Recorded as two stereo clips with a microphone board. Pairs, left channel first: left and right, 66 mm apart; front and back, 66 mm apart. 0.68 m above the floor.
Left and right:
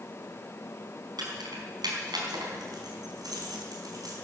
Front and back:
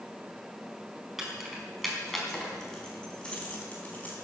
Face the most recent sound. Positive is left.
turn(degrees=-65)